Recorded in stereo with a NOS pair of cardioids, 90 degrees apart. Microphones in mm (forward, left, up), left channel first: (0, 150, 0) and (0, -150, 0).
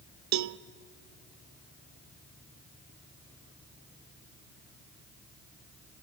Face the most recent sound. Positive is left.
turn(degrees=-70)